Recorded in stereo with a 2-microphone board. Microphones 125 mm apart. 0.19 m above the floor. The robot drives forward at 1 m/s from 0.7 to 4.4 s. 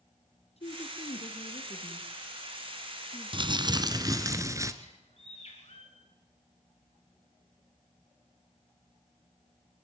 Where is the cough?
No cough in this recording.